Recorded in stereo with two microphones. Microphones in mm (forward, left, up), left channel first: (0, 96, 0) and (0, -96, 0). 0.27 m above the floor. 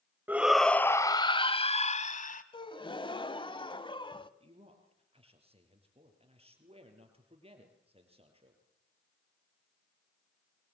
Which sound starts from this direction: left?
A gasp, at 2.5 s.